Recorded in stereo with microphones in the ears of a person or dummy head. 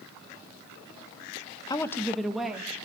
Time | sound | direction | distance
1.7 | a woman speaking | 25° left (ahead or behind) | 1.2 m